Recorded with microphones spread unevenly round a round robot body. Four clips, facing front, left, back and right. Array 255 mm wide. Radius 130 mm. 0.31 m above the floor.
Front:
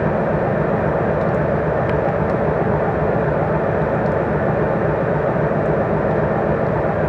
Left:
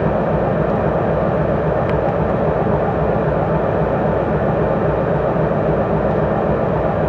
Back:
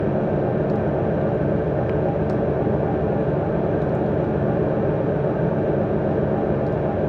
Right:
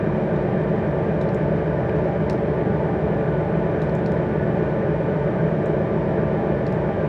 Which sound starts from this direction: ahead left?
An engine running, at 0.0 s.